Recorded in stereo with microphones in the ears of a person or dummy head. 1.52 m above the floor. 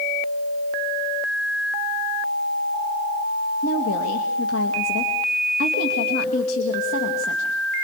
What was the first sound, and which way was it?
A woman speaking, 90° left.